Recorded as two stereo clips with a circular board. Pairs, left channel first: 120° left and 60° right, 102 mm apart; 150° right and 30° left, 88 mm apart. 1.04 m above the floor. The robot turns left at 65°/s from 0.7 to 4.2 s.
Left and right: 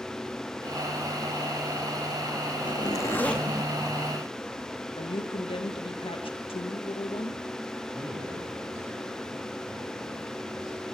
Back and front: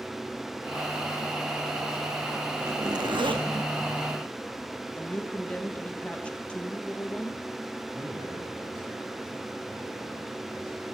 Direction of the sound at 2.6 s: 85° left.